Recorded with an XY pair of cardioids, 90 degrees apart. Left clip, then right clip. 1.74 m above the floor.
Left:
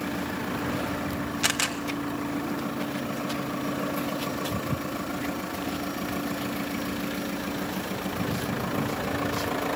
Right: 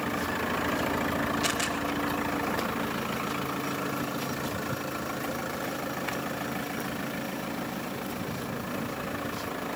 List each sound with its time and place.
1.4 s a camera shutter: 65° left, 3 m